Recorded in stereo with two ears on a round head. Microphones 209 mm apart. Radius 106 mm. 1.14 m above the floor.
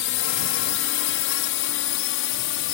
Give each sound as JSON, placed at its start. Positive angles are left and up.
{"t": 0.0, "sound": "a drone", "side_deg": 55}